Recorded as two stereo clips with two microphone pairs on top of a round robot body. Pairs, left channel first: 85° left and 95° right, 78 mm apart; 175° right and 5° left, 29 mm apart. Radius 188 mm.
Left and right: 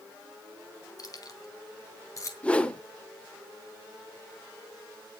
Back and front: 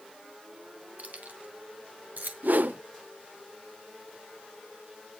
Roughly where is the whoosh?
Ahead.